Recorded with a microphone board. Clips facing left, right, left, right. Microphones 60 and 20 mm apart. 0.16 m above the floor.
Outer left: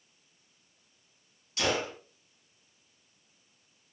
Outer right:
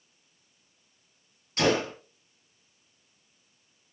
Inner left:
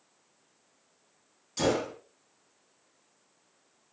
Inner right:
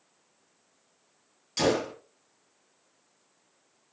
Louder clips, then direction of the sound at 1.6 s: Outer right 5 dB, inner right 2 dB; 45° right (ahead or behind).